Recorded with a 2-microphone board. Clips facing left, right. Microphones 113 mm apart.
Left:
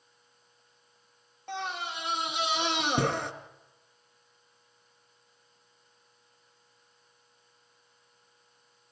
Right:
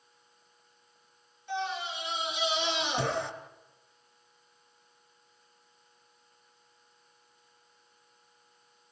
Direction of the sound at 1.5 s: 60° left (ahead or behind).